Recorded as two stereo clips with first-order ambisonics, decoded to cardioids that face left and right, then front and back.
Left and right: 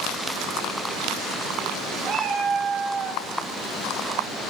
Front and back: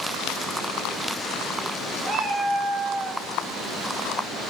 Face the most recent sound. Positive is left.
turn(degrees=-100)